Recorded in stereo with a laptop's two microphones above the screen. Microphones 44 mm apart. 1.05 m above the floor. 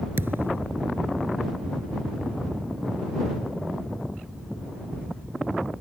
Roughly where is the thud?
Right.